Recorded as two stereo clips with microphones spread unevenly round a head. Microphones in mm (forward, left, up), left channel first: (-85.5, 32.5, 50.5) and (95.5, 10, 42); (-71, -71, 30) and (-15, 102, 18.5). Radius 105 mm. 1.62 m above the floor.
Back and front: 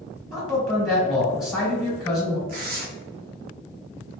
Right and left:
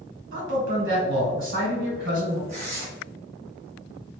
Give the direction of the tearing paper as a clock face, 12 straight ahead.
11 o'clock.